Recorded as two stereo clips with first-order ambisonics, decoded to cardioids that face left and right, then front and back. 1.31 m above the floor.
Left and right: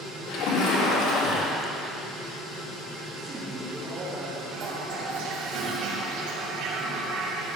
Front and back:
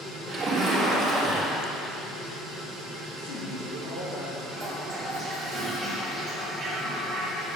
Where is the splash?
105° left, 2.5 m.